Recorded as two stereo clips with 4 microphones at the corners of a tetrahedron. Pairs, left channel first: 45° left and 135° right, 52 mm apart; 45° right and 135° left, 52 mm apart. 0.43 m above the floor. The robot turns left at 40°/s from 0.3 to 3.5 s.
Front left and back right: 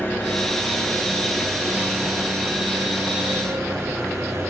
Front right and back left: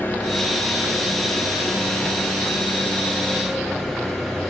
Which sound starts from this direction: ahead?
An engine running, at 0.0 s.